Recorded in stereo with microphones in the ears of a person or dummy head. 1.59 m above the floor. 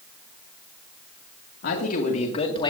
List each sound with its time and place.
1.6 s a man speaking: 65° left (ahead or behind), 2.5 m; by 2.7 s 30° left (ahead or behind), 2 m